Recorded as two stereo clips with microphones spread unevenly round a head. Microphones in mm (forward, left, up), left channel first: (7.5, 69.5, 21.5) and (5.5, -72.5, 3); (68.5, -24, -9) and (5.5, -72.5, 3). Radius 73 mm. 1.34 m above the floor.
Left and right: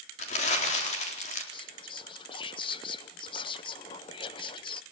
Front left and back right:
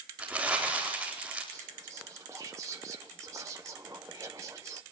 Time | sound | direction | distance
0.2 | crumpling | 135° left | 4 m
1.5 | whispering | 150° left | 0.7 m